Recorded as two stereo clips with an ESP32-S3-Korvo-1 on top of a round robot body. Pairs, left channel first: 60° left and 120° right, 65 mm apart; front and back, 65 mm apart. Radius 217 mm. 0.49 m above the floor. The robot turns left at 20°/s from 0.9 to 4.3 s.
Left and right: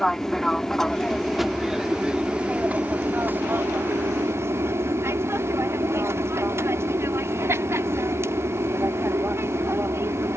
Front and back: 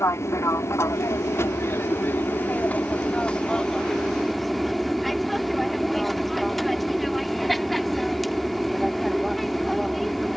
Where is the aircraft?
20° right; by 10.4 s 90° right.